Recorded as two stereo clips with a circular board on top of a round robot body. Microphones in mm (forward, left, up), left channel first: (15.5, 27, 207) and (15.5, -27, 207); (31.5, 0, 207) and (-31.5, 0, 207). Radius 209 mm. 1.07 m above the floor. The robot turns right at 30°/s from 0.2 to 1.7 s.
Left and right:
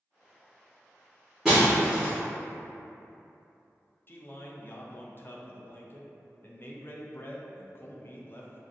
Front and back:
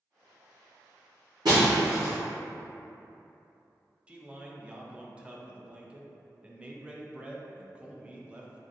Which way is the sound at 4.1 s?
115° left.